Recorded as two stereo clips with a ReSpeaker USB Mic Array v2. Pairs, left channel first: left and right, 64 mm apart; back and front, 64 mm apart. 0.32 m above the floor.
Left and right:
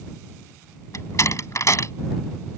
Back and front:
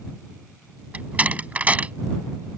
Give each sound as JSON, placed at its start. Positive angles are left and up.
{"t": 0.9, "sound": "a door slam", "azimuth_deg": 65}